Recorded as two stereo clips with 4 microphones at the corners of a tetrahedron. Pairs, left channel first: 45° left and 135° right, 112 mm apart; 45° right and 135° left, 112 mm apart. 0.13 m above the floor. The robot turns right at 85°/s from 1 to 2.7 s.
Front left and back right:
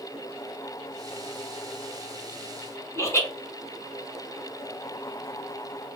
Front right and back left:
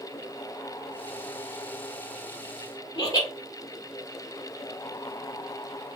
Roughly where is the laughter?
Ahead.